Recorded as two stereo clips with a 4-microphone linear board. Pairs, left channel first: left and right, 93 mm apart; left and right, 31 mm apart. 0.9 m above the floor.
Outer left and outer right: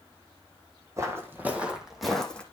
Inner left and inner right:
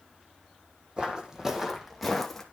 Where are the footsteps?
30° right (ahead or behind), 1.8 m; by 2.4 s 10° left (ahead or behind), 1.9 m.